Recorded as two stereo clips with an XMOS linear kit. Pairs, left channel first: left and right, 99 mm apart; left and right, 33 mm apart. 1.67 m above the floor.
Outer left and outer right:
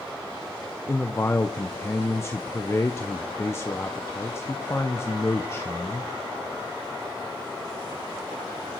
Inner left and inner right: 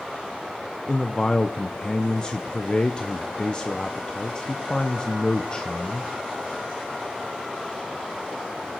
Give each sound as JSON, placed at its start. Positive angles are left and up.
{"t": 0.9, "sound": "a man speaking", "side_deg": 25, "distance_m": 0.7}